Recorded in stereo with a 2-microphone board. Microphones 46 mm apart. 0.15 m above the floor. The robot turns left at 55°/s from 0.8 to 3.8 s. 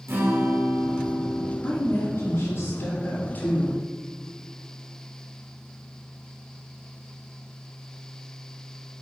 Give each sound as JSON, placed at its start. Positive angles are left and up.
{"t": 0.1, "sound": "a guitar", "azimuth_deg": -75, "distance_m": 3.0}
{"t": 1.6, "sound": "a woman speaking", "azimuth_deg": 145, "distance_m": 1.9}